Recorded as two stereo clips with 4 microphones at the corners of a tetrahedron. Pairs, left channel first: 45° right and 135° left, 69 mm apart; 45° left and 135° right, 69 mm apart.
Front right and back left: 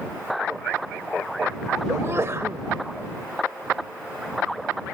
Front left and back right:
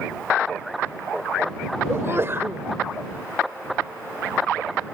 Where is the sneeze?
175° left.